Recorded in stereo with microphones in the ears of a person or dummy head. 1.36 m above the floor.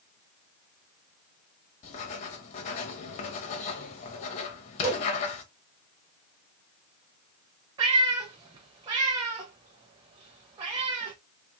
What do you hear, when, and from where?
1.8 s writing: 35° left (ahead or behind), 0.9 m
4.8 s a whoosh: 10° right (ahead or behind), 2 m
7.8 s a cat meowing: 20° right (ahead or behind), 0.6 m